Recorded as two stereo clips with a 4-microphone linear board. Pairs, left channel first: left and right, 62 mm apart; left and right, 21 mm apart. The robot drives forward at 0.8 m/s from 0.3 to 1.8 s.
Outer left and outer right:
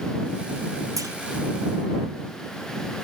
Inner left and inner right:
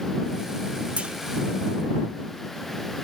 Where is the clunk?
70° right (ahead or behind), 0.6 m; by 1.1 s 60° right (ahead or behind), 0.7 m.